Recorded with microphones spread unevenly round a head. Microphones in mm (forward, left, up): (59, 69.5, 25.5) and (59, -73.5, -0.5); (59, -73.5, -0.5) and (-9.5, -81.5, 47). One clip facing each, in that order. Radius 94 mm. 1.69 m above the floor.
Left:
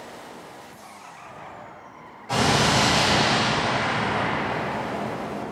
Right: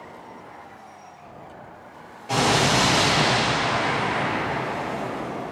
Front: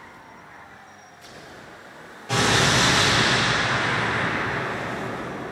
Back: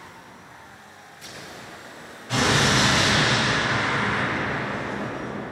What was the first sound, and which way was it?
An explosion, 15° right.